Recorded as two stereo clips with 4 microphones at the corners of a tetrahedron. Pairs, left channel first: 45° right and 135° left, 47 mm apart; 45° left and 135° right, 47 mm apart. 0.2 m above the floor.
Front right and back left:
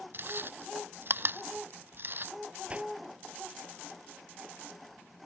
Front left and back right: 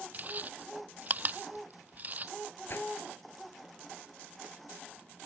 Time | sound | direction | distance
0.1 | chewing | 175° left | ?
2.7 | a whoosh | 75° left | ?